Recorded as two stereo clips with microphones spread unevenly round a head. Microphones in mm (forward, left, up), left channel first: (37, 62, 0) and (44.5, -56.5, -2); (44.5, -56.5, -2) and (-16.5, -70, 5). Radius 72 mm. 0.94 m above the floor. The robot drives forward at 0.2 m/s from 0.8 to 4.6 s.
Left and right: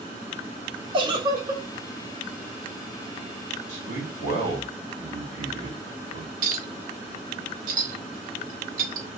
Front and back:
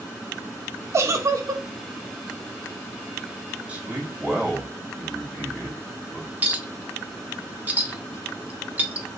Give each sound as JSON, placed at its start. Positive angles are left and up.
{"t": 0.9, "sound": "a giggle", "azimuth_deg": -140, "distance_m": 0.7}
{"t": 3.7, "sound": "a man speaking", "azimuth_deg": -100, "distance_m": 3.0}
{"t": 6.4, "sound": "a clink", "azimuth_deg": -105, "distance_m": 1.1}